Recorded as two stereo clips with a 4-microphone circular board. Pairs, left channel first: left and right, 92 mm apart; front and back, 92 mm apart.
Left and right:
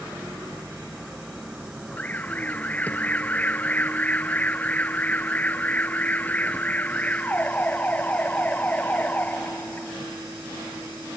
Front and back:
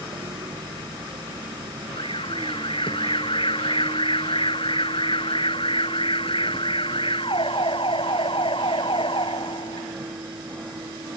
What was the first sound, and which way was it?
A vehicle, 155° right.